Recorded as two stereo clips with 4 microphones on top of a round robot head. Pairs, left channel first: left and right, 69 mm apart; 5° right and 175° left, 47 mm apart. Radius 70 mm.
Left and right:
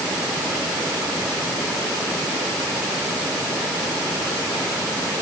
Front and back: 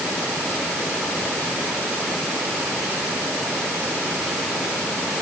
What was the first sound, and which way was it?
Only background noise.